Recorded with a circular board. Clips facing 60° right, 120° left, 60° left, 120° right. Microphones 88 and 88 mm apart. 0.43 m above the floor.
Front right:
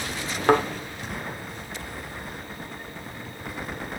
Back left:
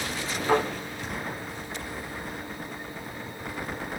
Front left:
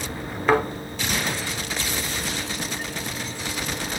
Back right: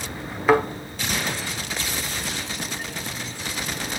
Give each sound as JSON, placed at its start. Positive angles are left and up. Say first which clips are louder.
{"t": 0.5, "sound": "a thud", "louder": "front right 4 dB, back right 2 dB", "azimuth_deg": -35, "distance_m": 1.6}